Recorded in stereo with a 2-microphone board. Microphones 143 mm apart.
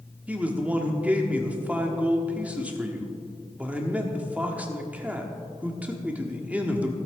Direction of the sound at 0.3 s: 10° right (ahead or behind).